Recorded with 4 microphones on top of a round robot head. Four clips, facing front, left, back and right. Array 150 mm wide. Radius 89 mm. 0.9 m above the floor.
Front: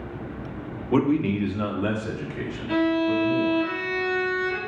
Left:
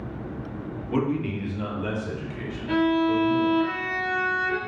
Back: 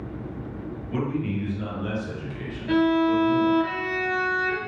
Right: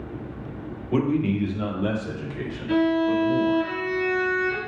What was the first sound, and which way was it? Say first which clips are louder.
A man speaking: right 3 dB, front 7 dB; 5° right.